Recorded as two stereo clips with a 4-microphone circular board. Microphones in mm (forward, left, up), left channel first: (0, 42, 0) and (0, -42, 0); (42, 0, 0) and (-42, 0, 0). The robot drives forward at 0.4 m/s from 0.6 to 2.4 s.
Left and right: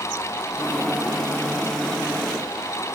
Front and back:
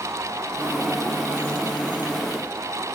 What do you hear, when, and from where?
Only background noise.